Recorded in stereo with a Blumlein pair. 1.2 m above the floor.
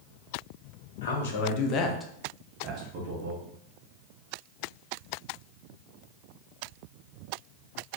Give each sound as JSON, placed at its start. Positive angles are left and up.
{"t": 1.0, "sound": "a man speaking", "azimuth_deg": 65, "distance_m": 0.8}